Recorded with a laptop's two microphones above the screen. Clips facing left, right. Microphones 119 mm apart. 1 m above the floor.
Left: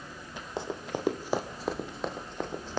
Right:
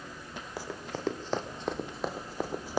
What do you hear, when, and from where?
0.6 s running footsteps: 25° left (ahead or behind), 1.6 m; by 2.8 s 10° right (ahead or behind), 1.9 m